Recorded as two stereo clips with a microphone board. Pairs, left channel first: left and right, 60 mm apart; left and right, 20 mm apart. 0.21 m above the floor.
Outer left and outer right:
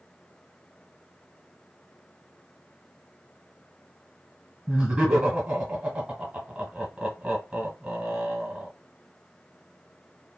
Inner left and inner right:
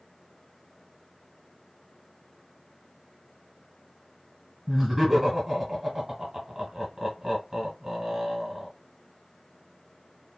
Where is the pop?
I don't hear a pop.